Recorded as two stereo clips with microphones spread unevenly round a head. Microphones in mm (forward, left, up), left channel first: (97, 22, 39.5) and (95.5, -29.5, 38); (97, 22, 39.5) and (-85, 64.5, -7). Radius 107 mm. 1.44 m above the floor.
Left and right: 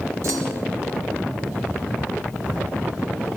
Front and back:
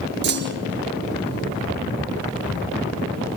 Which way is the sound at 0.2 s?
150° right.